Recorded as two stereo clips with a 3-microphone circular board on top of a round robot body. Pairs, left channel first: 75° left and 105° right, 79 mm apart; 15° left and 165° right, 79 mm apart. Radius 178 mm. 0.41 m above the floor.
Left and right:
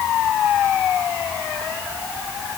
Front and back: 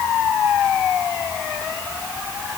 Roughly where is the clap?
No clap in this recording.